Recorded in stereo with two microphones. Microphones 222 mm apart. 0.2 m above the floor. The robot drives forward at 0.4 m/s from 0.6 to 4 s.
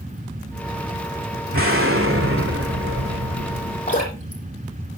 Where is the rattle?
I don't hear a rattle.